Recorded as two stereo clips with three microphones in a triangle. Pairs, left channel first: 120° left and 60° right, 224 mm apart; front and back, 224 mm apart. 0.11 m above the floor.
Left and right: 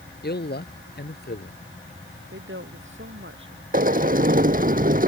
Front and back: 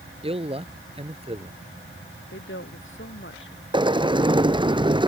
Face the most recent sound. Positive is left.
turn(degrees=-115)